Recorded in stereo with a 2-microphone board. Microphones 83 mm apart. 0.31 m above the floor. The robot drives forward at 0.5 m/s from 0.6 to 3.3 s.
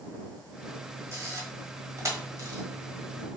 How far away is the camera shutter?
About 1.5 m.